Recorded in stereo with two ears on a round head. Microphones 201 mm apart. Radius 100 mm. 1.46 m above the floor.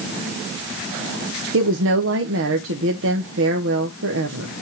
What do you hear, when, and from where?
1.5 s a woman speaking: 60° right (ahead or behind), 0.8 m